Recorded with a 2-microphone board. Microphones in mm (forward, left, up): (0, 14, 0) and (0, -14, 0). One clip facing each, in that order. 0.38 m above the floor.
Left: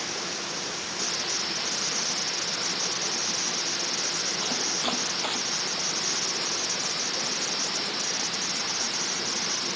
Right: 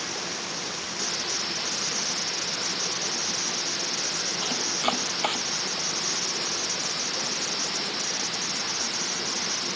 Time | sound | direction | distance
4.4 | chopping | 85° right | ?